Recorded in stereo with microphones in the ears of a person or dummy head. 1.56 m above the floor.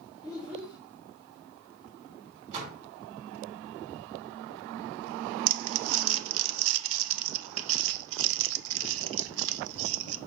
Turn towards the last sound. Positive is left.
turn(degrees=-75)  # may be behind; listen again after turning